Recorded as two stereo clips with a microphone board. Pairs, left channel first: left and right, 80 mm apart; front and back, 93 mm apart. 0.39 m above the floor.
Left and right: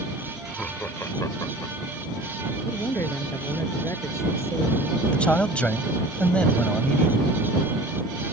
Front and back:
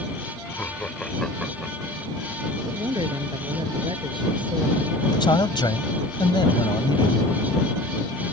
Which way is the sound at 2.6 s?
145° left.